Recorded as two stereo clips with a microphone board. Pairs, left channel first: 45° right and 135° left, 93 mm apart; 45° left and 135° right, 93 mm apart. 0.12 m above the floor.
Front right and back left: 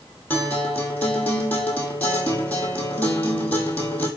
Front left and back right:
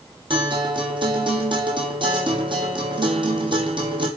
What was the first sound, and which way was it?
A guitar, 115° right.